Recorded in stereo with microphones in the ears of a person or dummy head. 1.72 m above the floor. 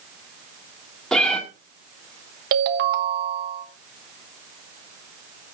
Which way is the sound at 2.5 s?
50° right (ahead or behind).